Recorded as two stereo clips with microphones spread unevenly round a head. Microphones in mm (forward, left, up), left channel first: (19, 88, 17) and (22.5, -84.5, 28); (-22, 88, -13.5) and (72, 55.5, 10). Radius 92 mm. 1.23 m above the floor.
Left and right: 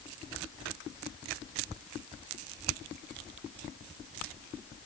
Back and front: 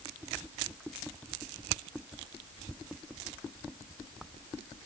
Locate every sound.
Only background noise.